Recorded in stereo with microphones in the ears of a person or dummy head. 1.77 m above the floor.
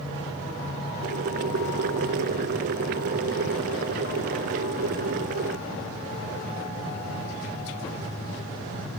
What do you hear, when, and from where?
1.0 s boiling: 45° right (ahead or behind)